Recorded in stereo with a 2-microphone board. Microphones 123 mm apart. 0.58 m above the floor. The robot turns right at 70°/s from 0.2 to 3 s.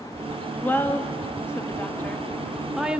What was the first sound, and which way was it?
A woman speaking, 15° left (ahead or behind).